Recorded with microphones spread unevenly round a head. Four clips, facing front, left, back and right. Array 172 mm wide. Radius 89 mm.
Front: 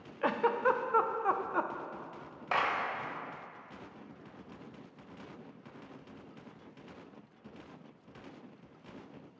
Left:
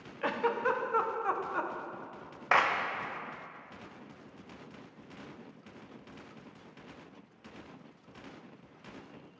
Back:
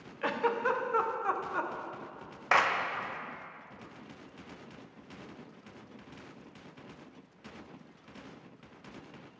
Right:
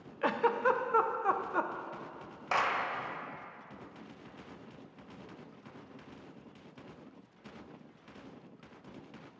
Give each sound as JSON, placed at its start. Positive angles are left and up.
{"t": 0.2, "sound": "a giggle", "azimuth_deg": -25, "distance_m": 0.5}
{"t": 2.5, "sound": "a clap", "azimuth_deg": 110, "distance_m": 0.7}